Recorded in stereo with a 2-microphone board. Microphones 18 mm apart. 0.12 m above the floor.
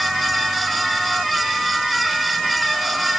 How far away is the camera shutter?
I don't hear a camera shutter.